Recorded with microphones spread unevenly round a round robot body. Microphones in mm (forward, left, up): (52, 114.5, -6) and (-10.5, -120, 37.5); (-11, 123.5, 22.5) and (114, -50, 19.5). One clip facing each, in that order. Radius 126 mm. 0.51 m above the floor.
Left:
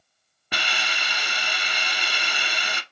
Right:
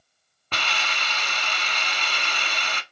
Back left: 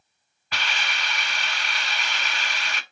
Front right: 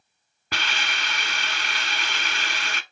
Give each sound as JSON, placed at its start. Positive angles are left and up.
{"t": 0.5, "sound": "a hiss", "azimuth_deg": -10, "distance_m": 0.8}